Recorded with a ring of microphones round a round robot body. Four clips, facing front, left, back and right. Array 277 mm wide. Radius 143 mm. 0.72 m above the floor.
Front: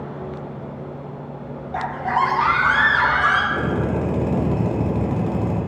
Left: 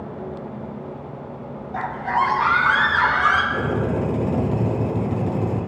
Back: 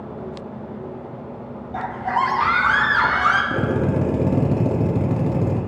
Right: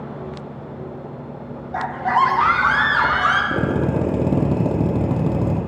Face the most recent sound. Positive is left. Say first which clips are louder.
# right 2 dB, back 1 dB
turn(degrees=-120)